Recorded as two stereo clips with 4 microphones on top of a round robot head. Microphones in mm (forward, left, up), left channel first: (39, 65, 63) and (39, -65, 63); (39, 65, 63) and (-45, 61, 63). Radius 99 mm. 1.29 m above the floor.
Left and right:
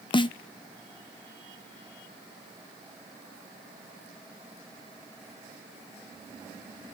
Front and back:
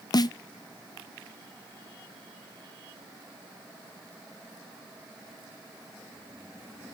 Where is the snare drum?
40° left, 0.6 m.